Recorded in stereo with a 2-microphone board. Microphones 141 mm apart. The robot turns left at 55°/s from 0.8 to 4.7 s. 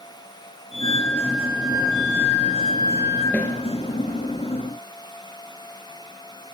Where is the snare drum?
10° left (ahead or behind), 3.5 m; by 3.5 s 20° left (ahead or behind), 3.5 m.